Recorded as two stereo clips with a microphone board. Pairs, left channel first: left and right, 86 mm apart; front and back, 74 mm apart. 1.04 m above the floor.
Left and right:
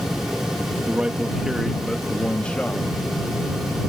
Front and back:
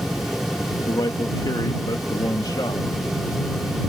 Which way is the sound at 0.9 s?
15° right.